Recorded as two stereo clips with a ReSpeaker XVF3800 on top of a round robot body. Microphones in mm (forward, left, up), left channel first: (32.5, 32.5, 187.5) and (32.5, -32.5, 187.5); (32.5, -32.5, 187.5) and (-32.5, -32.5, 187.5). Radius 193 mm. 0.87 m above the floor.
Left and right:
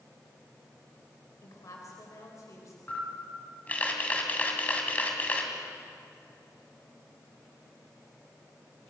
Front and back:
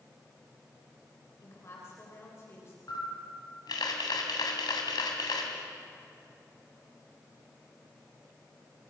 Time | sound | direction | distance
1.4 | a woman speaking | 50° left | 4 m
2.9 | a camera shutter | 20° left | 3 m